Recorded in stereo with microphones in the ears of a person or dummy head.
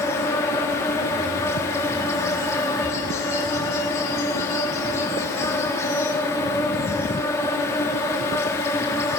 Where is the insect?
15° left (ahead or behind), 1.4 m.